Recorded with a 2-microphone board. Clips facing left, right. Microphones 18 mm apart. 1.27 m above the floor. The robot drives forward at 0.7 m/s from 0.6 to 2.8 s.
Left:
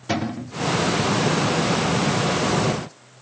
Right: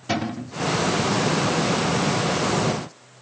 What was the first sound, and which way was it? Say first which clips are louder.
A cupboard door: left 1 dB; 5° right (ahead or behind).